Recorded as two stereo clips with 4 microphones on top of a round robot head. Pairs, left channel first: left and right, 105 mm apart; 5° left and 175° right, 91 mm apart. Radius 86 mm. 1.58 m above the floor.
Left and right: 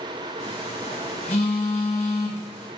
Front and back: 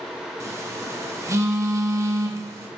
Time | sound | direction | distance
0.4 | a phone buzzing | 130° left | 1.3 m